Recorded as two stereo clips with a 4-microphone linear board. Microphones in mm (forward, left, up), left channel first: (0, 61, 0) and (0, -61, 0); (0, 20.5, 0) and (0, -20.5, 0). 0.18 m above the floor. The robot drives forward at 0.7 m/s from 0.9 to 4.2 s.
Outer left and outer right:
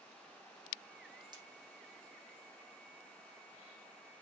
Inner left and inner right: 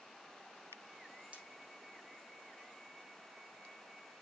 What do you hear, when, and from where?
1.3 s breaking glass: 35° right (ahead or behind), 4.5 m